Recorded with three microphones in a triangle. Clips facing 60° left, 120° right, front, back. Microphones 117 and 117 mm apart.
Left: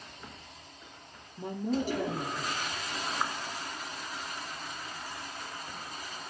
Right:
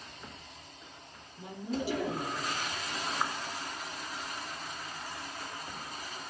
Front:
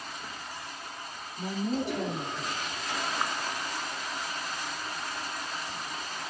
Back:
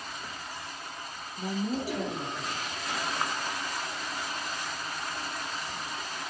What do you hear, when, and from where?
1.4 s a woman speaking: 95° left, 3 m